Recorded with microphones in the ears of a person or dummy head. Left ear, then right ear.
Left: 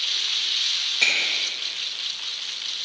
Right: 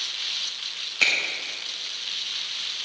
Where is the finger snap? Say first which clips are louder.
Even; 45° right (ahead or behind), 4 m.